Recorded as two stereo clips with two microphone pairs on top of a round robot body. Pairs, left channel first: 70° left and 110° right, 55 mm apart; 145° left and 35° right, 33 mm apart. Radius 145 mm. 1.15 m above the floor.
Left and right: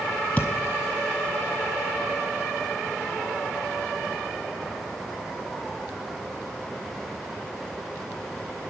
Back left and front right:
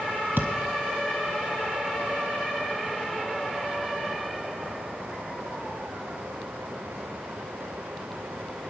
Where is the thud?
20° right, 0.5 m.